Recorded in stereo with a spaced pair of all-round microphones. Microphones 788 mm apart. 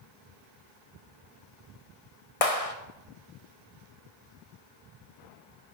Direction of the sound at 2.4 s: 45° left (ahead or behind).